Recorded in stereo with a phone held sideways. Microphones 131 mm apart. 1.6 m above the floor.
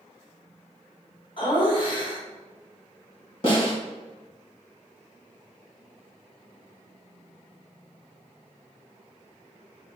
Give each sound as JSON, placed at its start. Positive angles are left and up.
{"t": 1.4, "sound": "laughter", "side_deg": 40, "distance_m": 1.1}
{"t": 3.4, "sound": "a snare drum", "side_deg": 40, "distance_m": 1.7}